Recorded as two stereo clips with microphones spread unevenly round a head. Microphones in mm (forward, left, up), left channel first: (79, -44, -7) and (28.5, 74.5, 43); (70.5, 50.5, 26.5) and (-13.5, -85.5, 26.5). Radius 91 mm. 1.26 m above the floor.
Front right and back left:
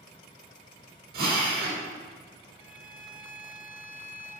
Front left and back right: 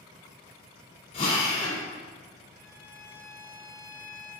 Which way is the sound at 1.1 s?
120° left.